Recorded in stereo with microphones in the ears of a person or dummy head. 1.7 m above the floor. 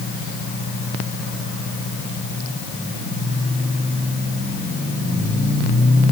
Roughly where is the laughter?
I don't hear laughter.